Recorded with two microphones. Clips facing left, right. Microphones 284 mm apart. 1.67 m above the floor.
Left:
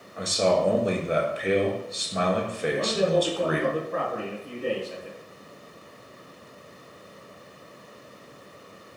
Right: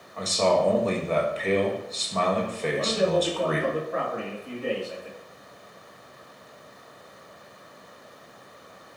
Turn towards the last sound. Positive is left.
turn(degrees=40)  # may be behind; listen again after turning